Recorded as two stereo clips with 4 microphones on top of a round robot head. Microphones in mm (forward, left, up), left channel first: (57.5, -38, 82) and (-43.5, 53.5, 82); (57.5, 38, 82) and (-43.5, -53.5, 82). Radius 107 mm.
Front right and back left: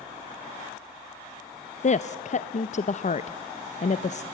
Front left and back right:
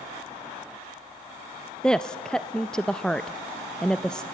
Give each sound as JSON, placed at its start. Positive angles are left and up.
{"t": 1.8, "sound": "a woman speaking", "azimuth_deg": -40, "distance_m": 0.6}